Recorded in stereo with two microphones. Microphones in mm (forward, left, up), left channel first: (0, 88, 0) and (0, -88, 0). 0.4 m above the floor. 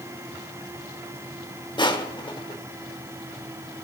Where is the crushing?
25° left (ahead or behind), 1.5 m.